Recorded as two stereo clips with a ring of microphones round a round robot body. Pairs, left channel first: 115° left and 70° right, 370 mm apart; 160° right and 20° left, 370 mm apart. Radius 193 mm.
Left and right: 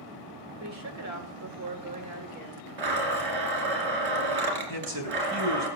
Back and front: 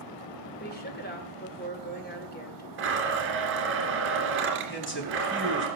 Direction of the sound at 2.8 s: 35° right.